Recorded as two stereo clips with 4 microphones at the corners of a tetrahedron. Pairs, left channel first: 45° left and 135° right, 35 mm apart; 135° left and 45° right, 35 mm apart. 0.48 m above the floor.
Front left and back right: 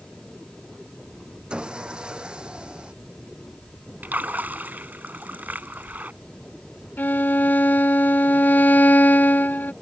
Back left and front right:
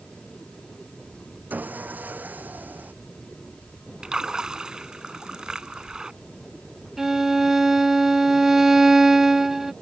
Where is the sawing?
75° right.